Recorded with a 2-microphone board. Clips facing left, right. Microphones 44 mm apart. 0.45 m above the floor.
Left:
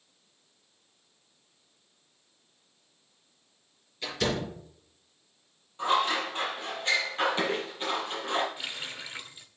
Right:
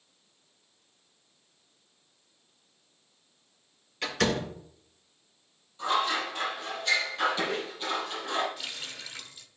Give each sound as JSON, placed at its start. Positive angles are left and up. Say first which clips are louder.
{"t": 4.0, "sound": "a door slam", "louder": "right 2 dB", "side_deg": -65, "distance_m": 3.5}
{"t": 5.8, "sound": "scissors", "louder": "left 1 dB", "side_deg": 35, "distance_m": 4.5}
{"t": 8.6, "sound": "a running tap", "louder": "left 2 dB", "side_deg": 20, "distance_m": 0.8}